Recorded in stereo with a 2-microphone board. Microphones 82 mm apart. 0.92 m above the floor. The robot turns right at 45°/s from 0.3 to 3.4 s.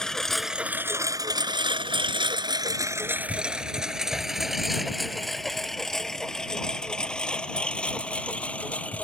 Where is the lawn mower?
5° left (ahead or behind); by 9.0 s 15° left (ahead or behind).